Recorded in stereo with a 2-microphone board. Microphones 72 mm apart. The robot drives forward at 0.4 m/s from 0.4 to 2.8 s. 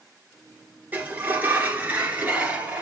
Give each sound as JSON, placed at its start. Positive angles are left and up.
{"t": 0.9, "sound": "a sliding door", "side_deg": -25, "distance_m": 2.0}